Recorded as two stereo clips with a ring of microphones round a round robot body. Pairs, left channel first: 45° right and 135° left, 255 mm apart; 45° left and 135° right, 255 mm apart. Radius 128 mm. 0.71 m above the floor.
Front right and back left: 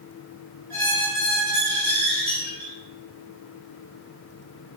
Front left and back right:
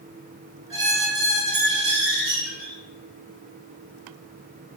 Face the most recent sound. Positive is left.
turn(degrees=-125)